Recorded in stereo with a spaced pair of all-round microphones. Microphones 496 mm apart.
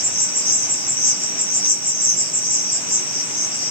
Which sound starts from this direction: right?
An insect, at 0.0 s.